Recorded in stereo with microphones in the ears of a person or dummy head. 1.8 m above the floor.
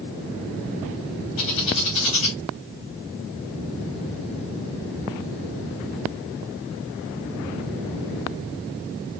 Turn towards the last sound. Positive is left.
turn(degrees=30)  # may be behind; listen again after turning